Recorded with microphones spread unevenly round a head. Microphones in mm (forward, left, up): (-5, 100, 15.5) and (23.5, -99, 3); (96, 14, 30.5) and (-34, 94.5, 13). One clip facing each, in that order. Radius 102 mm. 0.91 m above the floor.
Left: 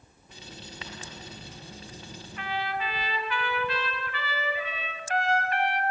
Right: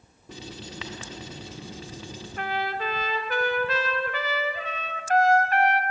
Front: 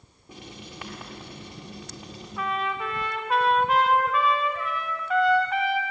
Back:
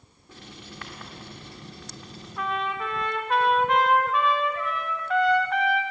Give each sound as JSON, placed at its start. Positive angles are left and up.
{"t": 0.3, "sound": "writing", "azimuth_deg": -110, "distance_m": 1.6}
{"t": 2.4, "sound": "a trumpet", "azimuth_deg": -125, "distance_m": 1.3}